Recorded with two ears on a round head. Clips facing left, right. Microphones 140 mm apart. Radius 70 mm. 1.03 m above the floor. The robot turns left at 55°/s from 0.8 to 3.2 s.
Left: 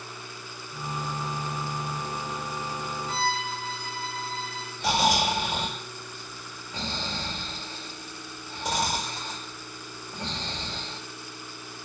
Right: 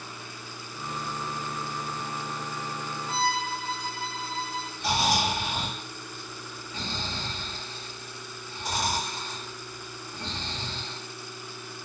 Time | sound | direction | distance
3.1 | a violin | 45° left (ahead or behind) | 1.5 m
4.8 | snoring | 65° left (ahead or behind) | 1.4 m